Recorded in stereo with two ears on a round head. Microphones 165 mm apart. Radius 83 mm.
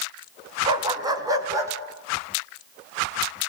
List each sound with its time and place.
0.7 s a dog barking: 25° right (ahead or behind), 2.5 m; by 1.7 s 15° right (ahead or behind), 4 m